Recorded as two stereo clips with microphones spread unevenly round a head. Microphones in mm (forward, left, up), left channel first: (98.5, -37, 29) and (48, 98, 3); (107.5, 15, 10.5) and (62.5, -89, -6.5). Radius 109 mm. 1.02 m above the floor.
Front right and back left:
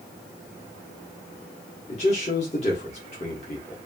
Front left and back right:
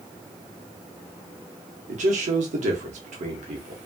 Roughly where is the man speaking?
Behind right.